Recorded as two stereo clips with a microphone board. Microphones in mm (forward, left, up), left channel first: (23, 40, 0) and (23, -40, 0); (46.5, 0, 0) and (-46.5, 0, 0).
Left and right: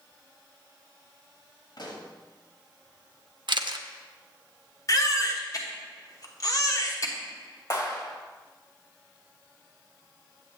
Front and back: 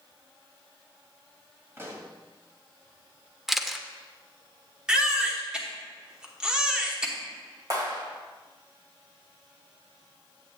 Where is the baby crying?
100° left, 1.1 m.